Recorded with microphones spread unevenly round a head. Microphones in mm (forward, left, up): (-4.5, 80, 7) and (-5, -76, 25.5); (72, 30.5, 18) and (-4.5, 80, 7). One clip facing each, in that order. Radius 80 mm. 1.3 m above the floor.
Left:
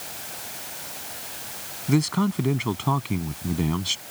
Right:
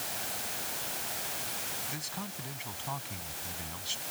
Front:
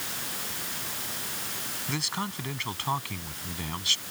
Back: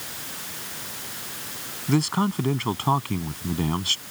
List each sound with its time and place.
1.9 s a man speaking: 105° left